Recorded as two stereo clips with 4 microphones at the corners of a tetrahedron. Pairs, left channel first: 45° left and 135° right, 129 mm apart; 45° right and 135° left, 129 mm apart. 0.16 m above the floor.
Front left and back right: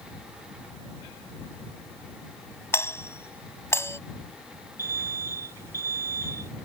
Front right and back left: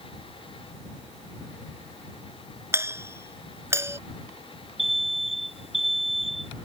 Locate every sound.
2.7 s a doorbell: 90° left
4.8 s an alarm: 70° right